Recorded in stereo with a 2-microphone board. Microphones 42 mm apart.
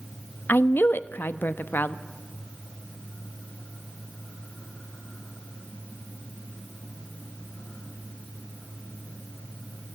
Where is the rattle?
I don't hear a rattle.